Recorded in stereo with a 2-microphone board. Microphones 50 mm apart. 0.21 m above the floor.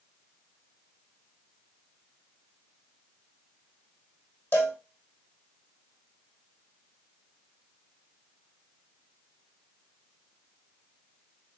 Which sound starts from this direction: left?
A cowbell, at 4.5 s.